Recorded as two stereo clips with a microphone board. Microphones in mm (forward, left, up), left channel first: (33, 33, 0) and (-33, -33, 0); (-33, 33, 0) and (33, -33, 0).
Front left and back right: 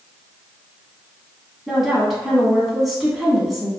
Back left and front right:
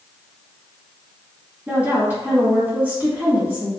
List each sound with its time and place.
1.7 s a woman speaking: 50° right, 1.6 m